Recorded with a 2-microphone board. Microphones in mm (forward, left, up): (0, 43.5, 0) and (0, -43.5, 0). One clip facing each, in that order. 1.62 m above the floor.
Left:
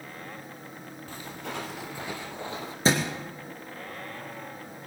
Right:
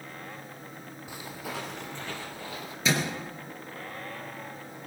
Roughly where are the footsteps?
Centre.